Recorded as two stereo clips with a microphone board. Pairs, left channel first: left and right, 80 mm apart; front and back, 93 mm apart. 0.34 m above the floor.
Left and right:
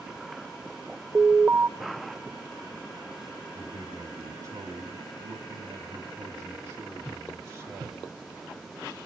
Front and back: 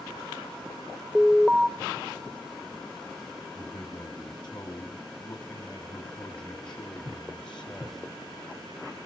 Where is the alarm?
105° right, 0.6 m.